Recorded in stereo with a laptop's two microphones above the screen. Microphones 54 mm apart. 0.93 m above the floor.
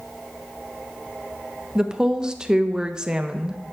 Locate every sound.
1.8 s a woman speaking: 15° right (ahead or behind), 0.6 m